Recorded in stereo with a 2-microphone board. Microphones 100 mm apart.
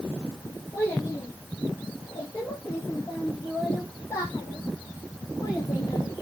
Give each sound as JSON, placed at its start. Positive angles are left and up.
{"t": 0.7, "sound": "a child speaking", "side_deg": 25, "distance_m": 7.0}